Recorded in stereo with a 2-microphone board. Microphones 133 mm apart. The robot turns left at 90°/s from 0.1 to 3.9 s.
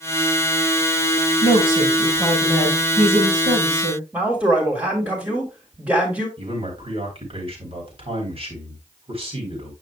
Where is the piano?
No piano in this recording.